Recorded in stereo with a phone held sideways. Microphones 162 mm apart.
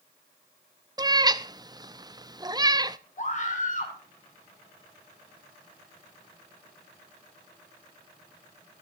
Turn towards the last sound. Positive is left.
turn(degrees=50)  # may be behind; listen again after turning